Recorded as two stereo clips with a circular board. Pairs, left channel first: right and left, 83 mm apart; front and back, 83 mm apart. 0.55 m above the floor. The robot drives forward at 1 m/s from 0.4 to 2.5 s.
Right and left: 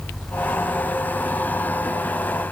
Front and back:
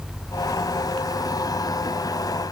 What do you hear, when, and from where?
Only background noise.